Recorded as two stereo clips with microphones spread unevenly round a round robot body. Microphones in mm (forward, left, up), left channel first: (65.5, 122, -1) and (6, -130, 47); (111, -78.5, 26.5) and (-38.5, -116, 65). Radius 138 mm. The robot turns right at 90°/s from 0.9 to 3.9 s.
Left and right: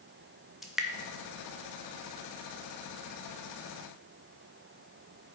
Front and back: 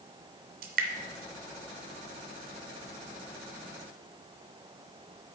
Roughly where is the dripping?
Behind.